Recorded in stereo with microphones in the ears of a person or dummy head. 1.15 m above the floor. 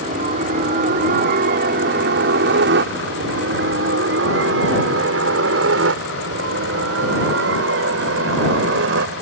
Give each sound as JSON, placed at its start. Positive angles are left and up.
{"t": 0.0, "sound": "a helicopter", "side_deg": -40}